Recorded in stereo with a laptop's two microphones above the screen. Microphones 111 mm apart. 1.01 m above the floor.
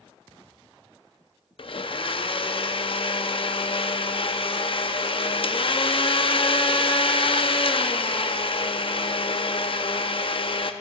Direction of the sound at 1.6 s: 55° left (ahead or behind).